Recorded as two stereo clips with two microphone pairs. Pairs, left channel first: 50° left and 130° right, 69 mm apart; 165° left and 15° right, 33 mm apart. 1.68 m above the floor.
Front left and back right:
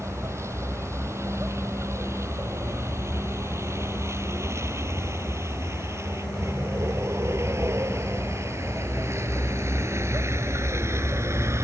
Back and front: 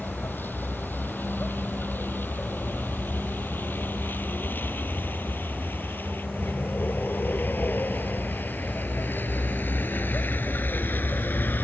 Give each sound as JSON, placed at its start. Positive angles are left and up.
{"t": 0.0, "sound": "a vehicle", "azimuth_deg": 180}